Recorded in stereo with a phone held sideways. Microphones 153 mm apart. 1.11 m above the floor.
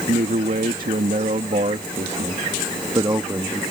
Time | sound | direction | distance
0.1 | a man speaking | 75° right (ahead or behind) | ?